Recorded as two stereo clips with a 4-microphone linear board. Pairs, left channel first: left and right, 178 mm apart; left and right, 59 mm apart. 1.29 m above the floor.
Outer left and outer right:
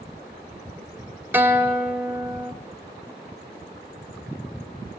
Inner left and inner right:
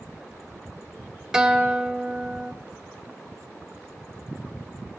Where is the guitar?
10° right (ahead or behind), 1.2 m.